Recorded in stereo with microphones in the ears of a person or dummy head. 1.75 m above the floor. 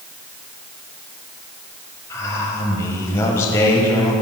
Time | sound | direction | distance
2.1 | a man speaking | 20° left (ahead or behind) | 1.5 m